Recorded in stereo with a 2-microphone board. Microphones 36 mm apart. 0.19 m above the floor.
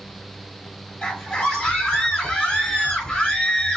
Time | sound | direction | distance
1.0 | a scream | 10° left (ahead or behind) | 1.1 m